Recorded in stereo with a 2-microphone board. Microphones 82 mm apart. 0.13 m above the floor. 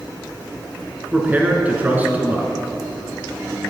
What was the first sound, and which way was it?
A man speaking, 20° right (ahead or behind).